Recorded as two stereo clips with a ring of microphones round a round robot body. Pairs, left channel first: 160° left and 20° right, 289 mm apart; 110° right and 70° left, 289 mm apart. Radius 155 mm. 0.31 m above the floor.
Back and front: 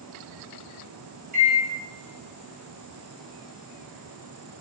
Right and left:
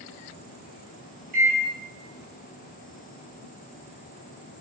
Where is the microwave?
25° left, 1.3 m.